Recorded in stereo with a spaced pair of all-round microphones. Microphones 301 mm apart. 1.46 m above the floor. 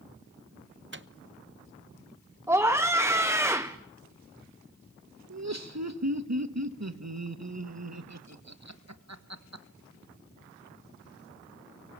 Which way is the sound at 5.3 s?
60° right (ahead or behind).